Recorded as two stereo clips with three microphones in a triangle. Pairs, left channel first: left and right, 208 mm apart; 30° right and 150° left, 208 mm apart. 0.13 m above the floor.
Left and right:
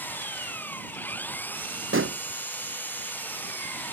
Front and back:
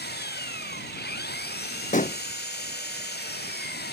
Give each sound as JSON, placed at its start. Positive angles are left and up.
{"t": 0.0, "sound": "an engine running", "azimuth_deg": 10}
{"t": 1.9, "sound": "a pop", "azimuth_deg": -85}